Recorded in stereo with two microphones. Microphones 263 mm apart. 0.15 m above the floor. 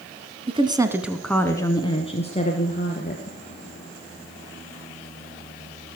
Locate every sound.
0.5 s a woman speaking: 20° right (ahead or behind), 1.1 m; by 3.4 s 30° left (ahead or behind), 2.5 m